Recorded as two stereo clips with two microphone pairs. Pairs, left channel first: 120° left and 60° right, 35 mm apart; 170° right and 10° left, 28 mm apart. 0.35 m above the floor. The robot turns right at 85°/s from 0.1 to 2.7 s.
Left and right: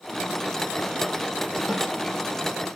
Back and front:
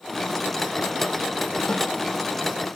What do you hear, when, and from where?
1.7 s a snare drum: 120° right, 7.5 m; by 1.8 s 110° right, 7.5 m